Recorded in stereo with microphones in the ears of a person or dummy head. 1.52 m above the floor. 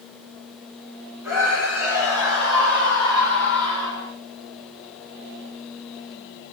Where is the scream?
20° right (ahead or behind), 8 m; by 4.1 s 30° right (ahead or behind), 8 m.